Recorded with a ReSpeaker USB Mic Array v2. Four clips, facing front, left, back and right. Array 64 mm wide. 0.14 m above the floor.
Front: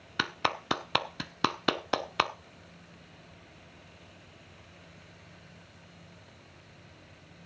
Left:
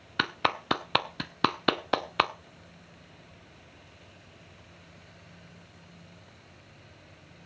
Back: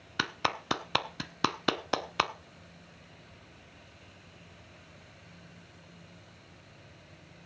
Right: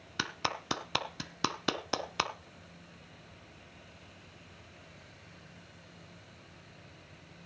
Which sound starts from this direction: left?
A clap, at 0.2 s.